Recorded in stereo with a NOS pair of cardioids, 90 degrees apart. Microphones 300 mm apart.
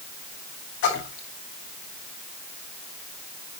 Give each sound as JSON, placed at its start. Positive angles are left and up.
{"t": 0.8, "sound": "a splash", "azimuth_deg": 65, "distance_m": 5.0}